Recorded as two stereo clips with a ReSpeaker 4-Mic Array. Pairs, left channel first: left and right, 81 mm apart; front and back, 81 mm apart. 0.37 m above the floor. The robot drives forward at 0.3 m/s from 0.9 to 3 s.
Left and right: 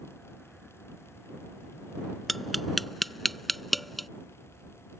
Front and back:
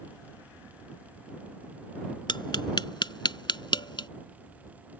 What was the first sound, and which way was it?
Tapping, straight ahead.